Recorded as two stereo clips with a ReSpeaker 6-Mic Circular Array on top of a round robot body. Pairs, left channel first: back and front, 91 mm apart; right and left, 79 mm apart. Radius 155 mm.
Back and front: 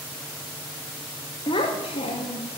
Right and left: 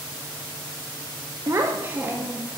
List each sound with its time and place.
1.5 s a child speaking: 140° left, 0.6 m; by 2.6 s 170° left, 1.2 m